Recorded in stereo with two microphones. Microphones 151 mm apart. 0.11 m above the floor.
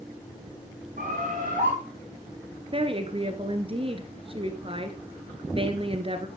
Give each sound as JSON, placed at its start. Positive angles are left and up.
{"t": 1.0, "sound": "a bird", "side_deg": -60, "distance_m": 4.5}
{"t": 2.7, "sound": "a woman speaking", "side_deg": -35, "distance_m": 1.3}